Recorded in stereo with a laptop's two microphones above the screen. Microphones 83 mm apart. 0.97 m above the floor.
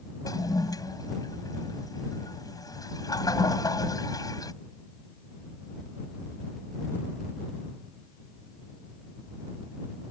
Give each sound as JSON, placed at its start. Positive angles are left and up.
{"t": 0.2, "sound": "a toilet flushing", "side_deg": 50}